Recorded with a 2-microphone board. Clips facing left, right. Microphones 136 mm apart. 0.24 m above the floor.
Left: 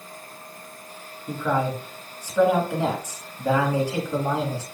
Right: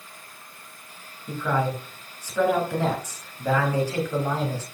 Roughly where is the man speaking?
Centre.